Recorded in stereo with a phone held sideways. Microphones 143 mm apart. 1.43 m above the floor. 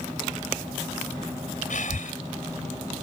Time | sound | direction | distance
1.7 | breathing | 65° left (ahead or behind) | ?